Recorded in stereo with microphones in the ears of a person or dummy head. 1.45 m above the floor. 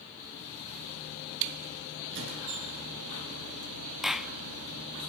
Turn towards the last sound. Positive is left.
turn(degrees=0)  # may be behind; listen again after turning